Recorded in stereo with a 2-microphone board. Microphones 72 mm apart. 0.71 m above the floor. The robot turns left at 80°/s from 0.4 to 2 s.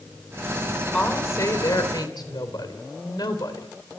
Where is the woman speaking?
165° left, 3.5 m; by 3.7 s 80° left, 3.5 m.